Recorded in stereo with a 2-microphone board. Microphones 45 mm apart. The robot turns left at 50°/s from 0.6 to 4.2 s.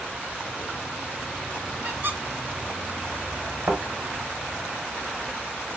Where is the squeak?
40° right (ahead or behind), 0.9 m; by 2.2 s 50° right (ahead or behind), 0.9 m.